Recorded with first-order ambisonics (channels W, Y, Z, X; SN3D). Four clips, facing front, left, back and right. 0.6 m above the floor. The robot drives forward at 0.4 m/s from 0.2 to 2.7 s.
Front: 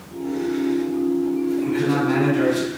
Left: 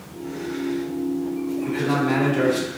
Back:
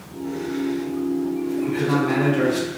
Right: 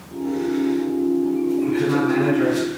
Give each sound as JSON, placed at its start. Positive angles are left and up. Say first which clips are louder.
{"t": 1.6, "sound": "a man speaking", "louder": "left 1 dB, back 1 dB", "azimuth_deg": 110, "distance_m": 1.4}